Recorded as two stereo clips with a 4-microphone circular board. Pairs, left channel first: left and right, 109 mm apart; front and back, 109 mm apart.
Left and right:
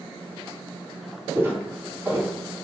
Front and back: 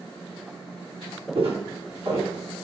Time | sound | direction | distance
1.4 | footsteps | 155° right | 1.5 m